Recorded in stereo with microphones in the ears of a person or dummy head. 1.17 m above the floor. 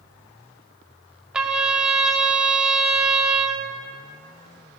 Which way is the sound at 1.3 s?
5° right (ahead or behind).